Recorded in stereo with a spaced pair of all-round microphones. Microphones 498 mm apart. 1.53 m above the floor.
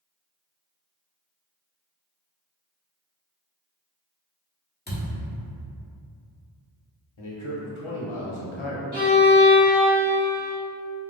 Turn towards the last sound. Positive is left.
turn(degrees=-70)  # may be behind; listen again after turning